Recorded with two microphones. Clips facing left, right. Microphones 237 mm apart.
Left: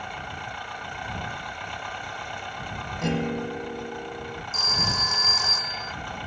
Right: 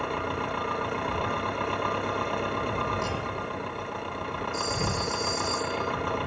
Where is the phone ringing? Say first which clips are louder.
Right 5 dB; 80° left.